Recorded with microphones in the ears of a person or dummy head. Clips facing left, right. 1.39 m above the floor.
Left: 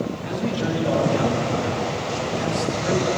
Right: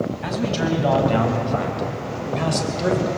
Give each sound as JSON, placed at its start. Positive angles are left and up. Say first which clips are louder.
{"t": 0.2, "sound": "a man speaking", "louder": "right 2 dB", "side_deg": -85, "distance_m": 8.0}